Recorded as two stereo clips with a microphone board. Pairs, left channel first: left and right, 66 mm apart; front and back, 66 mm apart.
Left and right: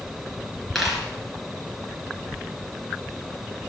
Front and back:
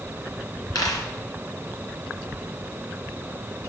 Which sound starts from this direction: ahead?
A dropped coin, at 0.8 s.